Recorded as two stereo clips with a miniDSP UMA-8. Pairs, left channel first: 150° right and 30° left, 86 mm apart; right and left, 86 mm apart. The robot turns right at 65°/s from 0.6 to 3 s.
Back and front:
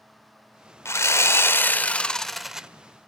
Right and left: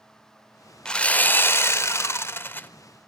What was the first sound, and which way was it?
Sawing, 160° right.